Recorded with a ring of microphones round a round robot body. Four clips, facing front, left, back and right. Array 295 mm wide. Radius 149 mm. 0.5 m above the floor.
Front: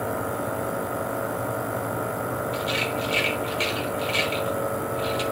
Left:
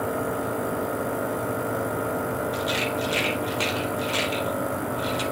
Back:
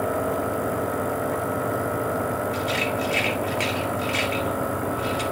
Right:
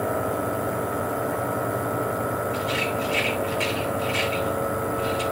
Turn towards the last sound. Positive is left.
turn(degrees=100)